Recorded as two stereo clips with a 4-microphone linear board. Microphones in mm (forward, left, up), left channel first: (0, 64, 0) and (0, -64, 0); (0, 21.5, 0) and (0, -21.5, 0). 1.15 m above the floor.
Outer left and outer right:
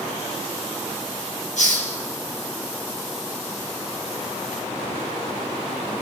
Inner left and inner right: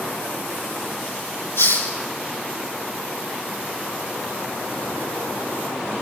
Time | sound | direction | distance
1.6 | a hiss | 70° left (ahead or behind) | 5.5 m